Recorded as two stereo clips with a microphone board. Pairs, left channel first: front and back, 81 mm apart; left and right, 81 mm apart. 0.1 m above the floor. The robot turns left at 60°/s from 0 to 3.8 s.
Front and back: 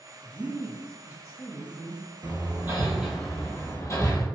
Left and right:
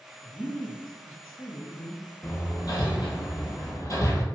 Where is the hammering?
145° left, 0.6 m; by 4.2 s 50° left, 0.6 m.